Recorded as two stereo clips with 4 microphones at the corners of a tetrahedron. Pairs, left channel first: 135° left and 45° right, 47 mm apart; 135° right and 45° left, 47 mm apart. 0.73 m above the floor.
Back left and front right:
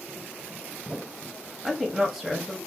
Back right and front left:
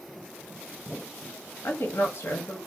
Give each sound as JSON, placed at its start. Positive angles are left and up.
{"t": 1.6, "sound": "a woman speaking", "azimuth_deg": -130, "distance_m": 0.7}